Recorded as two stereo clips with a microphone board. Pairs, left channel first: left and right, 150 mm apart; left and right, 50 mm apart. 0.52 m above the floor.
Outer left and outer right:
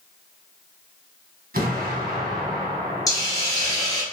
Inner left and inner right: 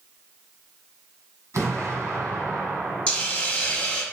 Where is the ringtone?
I don't hear a ringtone.